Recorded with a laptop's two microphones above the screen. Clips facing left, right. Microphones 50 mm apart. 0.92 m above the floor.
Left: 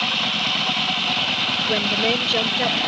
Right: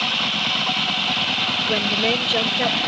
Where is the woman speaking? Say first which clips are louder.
Even; 5° left (ahead or behind); by 2.9 s 5° right (ahead or behind).